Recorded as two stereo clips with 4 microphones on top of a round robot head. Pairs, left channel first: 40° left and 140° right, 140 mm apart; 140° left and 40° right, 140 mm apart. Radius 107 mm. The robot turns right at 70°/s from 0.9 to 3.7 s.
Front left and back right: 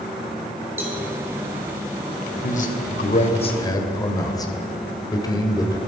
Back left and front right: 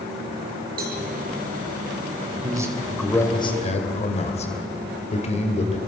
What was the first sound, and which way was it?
A cowbell, 60° right.